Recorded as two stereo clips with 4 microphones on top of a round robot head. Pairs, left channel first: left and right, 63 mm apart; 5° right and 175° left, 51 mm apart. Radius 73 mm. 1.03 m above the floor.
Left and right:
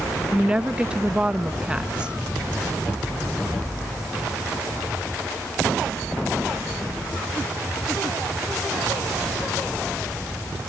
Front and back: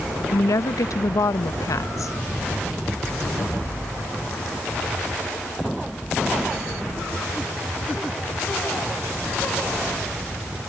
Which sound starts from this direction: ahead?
A woman speaking, at 0.3 s.